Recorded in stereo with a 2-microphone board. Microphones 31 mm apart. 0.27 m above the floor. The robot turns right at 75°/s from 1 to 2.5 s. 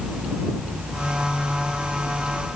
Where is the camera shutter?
No camera shutter in this recording.